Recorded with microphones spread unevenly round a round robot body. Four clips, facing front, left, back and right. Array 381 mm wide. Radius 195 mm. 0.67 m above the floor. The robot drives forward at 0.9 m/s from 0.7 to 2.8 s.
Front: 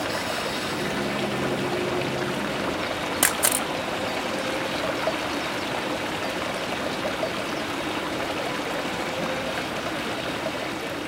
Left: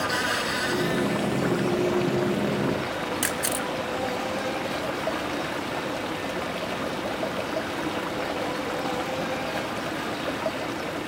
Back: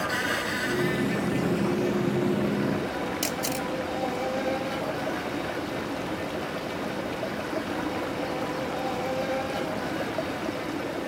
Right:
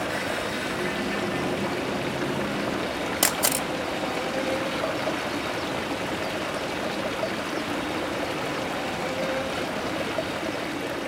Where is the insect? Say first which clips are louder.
Left 2 dB, front 1 dB; 115° left, 0.7 m; by 11.1 s 170° left, 2 m.